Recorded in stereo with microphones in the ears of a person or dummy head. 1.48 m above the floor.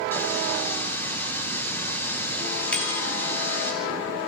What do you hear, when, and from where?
0.1 s a running tap: 15° left (ahead or behind), 3 m
2.7 s a bicycle bell: 10° left (ahead or behind), 2 m